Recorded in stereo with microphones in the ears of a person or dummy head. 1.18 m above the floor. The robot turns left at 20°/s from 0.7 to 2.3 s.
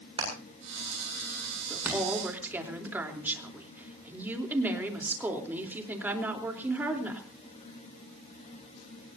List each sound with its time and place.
0.2 s hammering: 35° right (ahead or behind), 7.5 m; by 2.0 s 10° right (ahead or behind), 7.5 m
1.7 s a woman speaking: 5° left (ahead or behind), 3.5 m; by 7.2 s 5° right (ahead or behind), 3.5 m